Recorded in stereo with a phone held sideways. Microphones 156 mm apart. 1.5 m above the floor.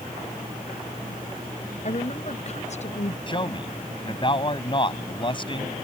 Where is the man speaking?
35° left (ahead or behind).